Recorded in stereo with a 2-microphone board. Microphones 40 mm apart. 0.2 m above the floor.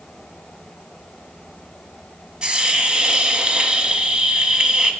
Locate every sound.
2.4 s a hiss: 25° right (ahead or behind), 0.6 m